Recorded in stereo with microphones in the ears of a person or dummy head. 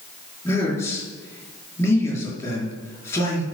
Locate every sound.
0.5 s a man speaking: 15° left (ahead or behind), 5 m